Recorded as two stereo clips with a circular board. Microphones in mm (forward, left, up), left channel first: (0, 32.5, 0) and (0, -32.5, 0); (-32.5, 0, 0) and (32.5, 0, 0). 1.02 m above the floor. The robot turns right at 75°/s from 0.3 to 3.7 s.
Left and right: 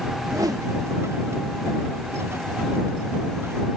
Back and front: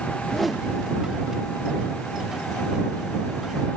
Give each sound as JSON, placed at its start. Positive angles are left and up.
{"t": 0.2, "sound": "a whoosh", "azimuth_deg": -105}